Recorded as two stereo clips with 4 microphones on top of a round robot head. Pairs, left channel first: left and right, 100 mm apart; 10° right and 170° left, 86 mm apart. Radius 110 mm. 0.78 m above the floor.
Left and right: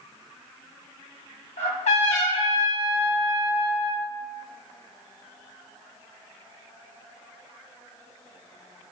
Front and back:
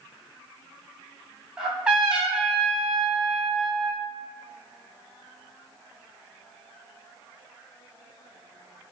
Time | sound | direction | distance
1.6 | a trumpet | 85° left | 2.5 m